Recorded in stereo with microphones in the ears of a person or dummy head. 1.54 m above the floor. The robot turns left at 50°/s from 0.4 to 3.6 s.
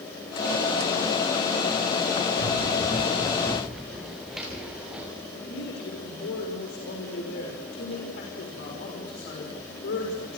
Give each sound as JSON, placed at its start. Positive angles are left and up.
{"t": 2.4, "sound": "running footsteps", "side_deg": 65, "distance_m": 8.0}
{"t": 5.3, "sound": "a man speaking", "side_deg": 60, "distance_m": 6.0}